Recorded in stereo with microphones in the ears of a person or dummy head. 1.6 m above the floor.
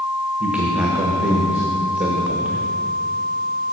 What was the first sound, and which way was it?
A man speaking, 10° right (ahead or behind).